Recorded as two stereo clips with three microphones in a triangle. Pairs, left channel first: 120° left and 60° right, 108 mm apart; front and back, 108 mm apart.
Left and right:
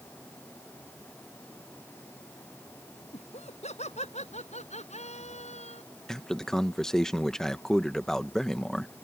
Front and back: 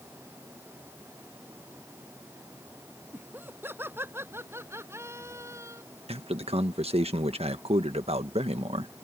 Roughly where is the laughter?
Left.